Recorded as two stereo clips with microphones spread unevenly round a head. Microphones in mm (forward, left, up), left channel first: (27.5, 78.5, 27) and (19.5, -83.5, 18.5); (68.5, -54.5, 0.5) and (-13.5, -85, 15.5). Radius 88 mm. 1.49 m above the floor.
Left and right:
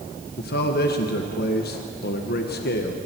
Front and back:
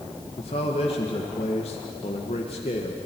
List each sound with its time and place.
0.4 s a man speaking: 60° left, 1.7 m